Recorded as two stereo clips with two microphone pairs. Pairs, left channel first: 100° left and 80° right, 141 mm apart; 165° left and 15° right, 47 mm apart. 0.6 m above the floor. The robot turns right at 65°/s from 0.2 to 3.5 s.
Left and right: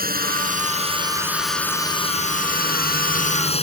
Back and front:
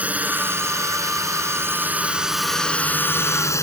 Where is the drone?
80° right; by 3.6 s 145° left.